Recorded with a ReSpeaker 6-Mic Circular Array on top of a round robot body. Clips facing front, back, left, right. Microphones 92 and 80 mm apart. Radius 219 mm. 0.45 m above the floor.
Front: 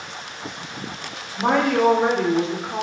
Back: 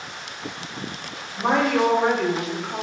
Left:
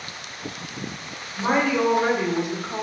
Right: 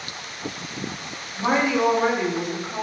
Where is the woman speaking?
15° right, 1.1 m; by 2.8 s 60° left, 0.8 m.